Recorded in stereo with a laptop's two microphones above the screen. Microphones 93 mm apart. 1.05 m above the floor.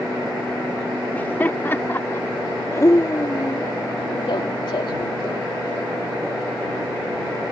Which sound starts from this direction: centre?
Laughter, at 1.1 s.